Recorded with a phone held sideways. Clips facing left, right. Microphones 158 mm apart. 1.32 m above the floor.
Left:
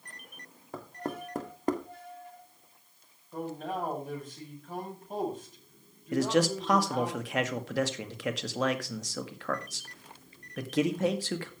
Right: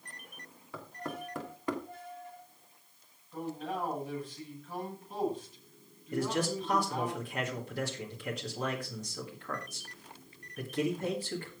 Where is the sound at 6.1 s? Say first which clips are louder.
Left 6 dB; 75° left (ahead or behind), 2.0 m.